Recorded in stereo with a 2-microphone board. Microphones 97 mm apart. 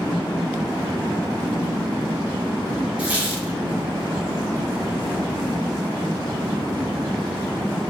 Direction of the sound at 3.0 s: 15° right (ahead or behind).